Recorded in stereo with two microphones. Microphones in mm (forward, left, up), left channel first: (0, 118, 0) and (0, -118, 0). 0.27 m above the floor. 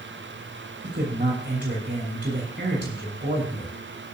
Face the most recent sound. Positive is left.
turn(degrees=-50)  # may be behind; listen again after turning